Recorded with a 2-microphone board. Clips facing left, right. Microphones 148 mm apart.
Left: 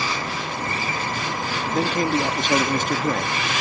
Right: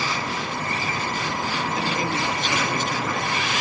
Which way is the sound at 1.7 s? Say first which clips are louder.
Left 8 dB; 50° left (ahead or behind).